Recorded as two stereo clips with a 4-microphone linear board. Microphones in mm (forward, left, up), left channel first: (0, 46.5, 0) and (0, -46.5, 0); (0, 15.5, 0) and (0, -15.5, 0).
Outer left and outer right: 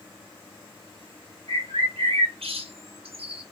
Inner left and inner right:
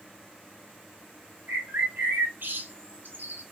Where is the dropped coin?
I don't hear a dropped coin.